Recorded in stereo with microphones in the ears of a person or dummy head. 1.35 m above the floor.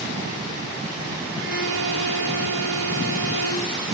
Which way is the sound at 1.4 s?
70° right (ahead or behind).